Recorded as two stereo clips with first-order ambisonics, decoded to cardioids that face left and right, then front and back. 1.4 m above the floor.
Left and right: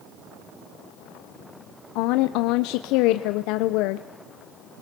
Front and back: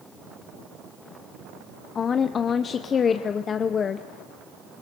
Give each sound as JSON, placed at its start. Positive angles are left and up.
{"t": 1.9, "sound": "a woman speaking", "azimuth_deg": 65, "distance_m": 0.7}